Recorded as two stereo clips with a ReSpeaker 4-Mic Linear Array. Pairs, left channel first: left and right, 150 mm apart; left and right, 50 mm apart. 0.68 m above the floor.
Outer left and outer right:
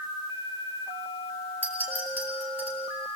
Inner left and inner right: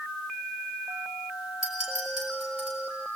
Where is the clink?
10° right (ahead or behind), 3.5 m.